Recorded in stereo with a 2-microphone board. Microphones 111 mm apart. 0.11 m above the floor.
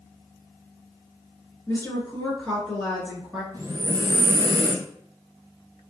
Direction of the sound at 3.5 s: 35° right (ahead or behind).